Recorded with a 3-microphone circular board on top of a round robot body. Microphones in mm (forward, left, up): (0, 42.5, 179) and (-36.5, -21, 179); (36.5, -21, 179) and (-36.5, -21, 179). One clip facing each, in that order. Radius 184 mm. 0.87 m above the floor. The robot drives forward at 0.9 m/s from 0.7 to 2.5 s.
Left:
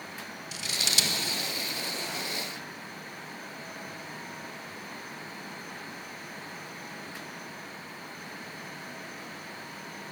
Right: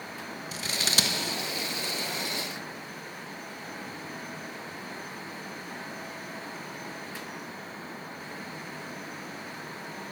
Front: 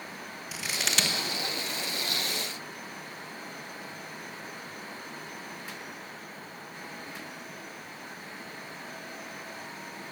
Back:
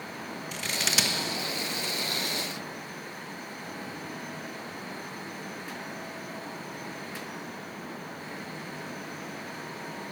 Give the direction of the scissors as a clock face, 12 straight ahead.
3 o'clock.